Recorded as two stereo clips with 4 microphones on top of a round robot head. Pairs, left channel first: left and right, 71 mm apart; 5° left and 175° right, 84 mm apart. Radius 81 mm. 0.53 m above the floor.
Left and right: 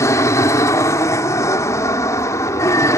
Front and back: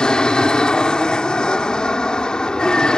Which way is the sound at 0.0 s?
80° left.